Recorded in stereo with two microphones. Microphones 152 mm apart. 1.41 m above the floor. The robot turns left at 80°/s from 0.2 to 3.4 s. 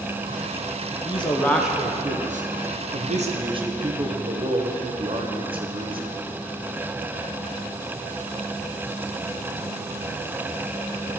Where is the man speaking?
45° left, 1.0 m; by 6.1 s 145° right, 1.0 m.